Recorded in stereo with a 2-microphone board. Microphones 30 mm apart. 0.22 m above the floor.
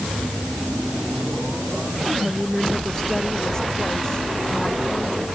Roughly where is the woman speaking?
Centre.